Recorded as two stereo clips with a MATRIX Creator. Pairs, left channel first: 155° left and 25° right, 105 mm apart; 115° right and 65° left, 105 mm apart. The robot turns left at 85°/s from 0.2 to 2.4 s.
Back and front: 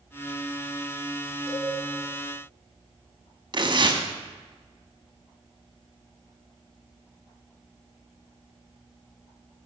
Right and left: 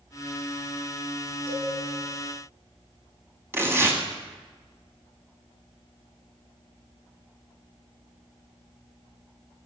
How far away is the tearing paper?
About 0.6 m.